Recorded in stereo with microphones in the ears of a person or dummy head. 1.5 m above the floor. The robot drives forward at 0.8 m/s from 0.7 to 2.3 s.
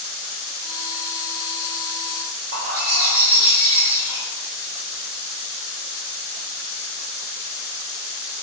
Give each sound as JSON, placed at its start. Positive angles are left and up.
{"t": 2.5, "sound": "a bird", "side_deg": -45, "distance_m": 1.1}